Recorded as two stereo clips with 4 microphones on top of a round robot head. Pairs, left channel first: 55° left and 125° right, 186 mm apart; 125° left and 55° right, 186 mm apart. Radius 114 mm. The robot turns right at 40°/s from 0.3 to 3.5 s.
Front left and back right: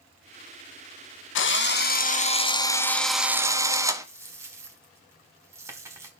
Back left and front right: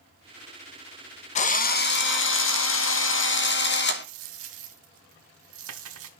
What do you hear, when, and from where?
1.4 s a drill: 70° left, 1.0 m; by 4.0 s 160° left, 1.0 m
4.0 s a dropped coin: 50° right, 1.3 m